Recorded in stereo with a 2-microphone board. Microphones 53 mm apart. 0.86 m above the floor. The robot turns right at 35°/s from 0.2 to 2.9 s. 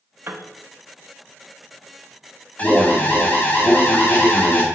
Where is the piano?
50° right (ahead or behind), 0.6 m; by 0.5 s 45° right (ahead or behind), 0.6 m.